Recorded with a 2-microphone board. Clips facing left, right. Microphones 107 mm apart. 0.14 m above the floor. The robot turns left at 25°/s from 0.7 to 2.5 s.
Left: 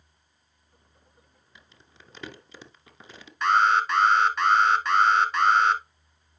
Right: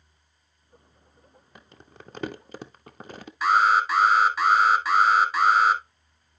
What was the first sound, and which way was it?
Crumpling, 55° right (ahead or behind).